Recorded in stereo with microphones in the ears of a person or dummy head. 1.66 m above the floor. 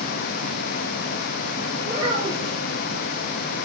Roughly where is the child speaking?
Right.